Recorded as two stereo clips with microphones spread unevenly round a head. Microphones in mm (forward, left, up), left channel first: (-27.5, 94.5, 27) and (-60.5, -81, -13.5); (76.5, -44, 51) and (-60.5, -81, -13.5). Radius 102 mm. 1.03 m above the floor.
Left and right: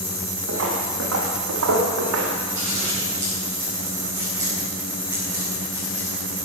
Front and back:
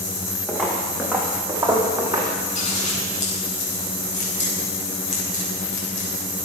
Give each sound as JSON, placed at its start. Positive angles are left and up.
{"t": 0.5, "sound": "footsteps", "azimuth_deg": -65, "distance_m": 5.0}
{"t": 2.5, "sound": "scissors", "azimuth_deg": -25, "distance_m": 6.5}